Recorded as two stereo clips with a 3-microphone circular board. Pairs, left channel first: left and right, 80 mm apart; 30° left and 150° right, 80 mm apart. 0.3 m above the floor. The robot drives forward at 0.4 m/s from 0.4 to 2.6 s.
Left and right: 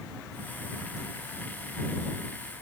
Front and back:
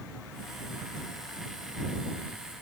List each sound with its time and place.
Only background noise.